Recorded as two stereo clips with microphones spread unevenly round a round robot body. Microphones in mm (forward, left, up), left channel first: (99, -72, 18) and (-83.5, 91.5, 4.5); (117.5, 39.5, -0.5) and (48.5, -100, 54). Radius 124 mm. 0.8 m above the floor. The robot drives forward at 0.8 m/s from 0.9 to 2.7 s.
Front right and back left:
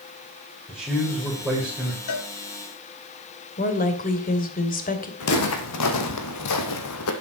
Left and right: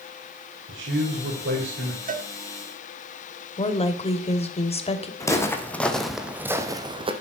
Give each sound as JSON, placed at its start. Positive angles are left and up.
{"t": 0.7, "sound": "a man speaking", "azimuth_deg": -125, "distance_m": 4.0}
{"t": 2.1, "sound": "a cowbell", "azimuth_deg": -80, "distance_m": 1.7}
{"t": 3.6, "sound": "a woman speaking", "azimuth_deg": 15, "distance_m": 3.0}
{"t": 5.2, "sound": "footsteps", "azimuth_deg": -10, "distance_m": 3.0}